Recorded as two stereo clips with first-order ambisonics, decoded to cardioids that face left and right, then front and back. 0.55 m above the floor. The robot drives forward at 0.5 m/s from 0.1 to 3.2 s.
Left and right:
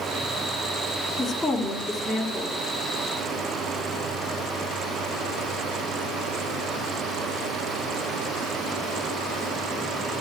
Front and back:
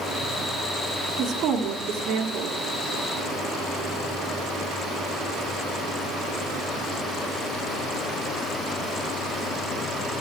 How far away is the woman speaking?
About 1.2 m.